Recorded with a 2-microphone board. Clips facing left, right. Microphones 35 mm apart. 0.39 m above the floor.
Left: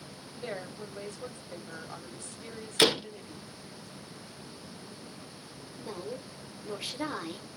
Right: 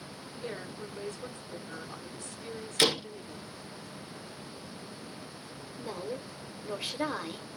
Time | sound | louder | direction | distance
0.4 | a woman speaking | left 1 dB | 45° left (ahead or behind) | 1.6 m
2.8 | a door slam | left 2 dB | 20° left (ahead or behind) | 0.5 m
5.8 | a woman speaking | right 2 dB | 20° right (ahead or behind) | 1.0 m